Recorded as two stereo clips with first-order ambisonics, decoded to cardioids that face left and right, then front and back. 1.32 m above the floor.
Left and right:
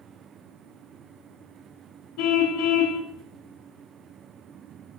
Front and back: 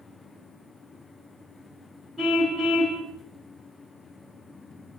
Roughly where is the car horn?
Left.